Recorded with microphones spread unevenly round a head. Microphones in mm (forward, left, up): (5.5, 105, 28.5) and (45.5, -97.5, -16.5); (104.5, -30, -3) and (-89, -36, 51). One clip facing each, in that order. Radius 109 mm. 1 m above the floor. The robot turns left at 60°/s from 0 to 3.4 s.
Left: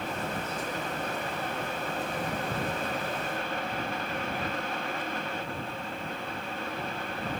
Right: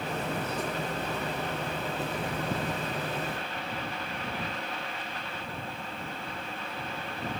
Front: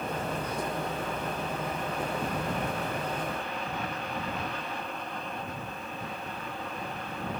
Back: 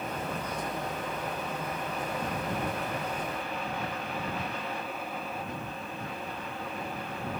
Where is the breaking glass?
I don't hear breaking glass.